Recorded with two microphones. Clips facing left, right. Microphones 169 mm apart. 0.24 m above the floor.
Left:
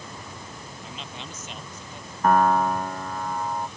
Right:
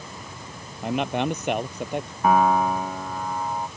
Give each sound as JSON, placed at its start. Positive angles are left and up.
{"t": 0.8, "sound": "a man speaking", "side_deg": -65}
{"t": 2.2, "sound": "a piano", "side_deg": -5}